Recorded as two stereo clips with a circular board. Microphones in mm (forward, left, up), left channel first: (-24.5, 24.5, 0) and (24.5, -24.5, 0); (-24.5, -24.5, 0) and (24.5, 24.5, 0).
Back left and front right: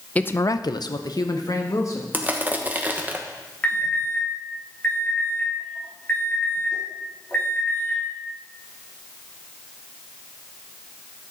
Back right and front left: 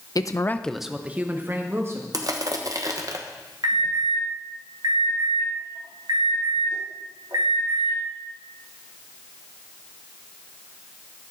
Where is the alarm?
65° left, 3 m.